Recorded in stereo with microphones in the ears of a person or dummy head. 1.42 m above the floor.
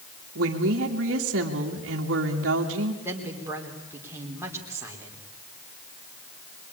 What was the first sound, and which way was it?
A woman speaking, 65° right (ahead or behind).